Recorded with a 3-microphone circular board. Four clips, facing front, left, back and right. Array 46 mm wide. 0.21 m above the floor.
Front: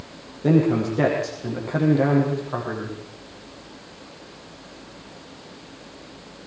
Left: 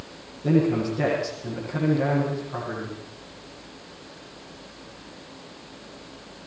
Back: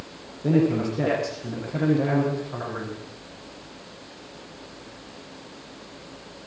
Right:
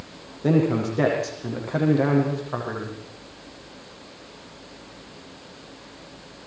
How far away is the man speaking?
About 9.5 m.